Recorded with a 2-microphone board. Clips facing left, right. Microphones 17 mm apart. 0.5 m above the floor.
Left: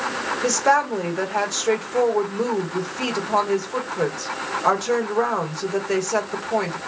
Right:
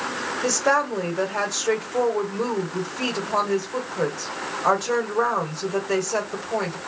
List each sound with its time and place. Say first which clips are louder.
0.4 s a woman speaking: left 2 dB; 10° left (ahead or behind), 1.5 m